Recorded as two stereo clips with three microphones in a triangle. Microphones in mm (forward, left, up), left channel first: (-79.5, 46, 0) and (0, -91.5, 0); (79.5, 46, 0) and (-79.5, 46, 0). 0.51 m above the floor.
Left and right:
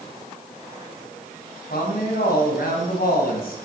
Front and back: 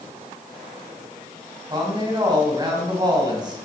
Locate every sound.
1.7 s a woman speaking: 120° left, 4.5 m